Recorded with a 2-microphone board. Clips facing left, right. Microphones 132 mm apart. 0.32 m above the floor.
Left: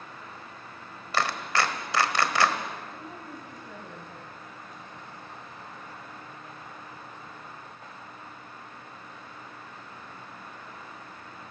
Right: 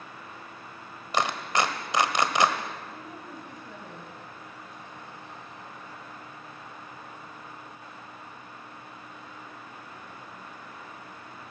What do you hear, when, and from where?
1.1 s a clap: 20° right (ahead or behind), 1.4 m
2.9 s a woman speaking: centre (ahead or behind), 2 m